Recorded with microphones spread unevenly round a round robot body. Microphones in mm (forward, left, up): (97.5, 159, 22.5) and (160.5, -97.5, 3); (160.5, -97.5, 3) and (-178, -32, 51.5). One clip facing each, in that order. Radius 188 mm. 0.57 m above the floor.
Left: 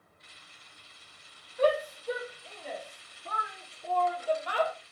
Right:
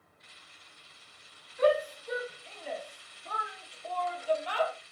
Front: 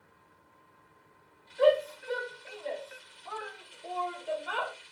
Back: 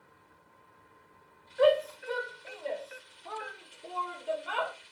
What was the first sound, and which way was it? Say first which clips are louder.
A shout: right 1 dB, even; 170° left.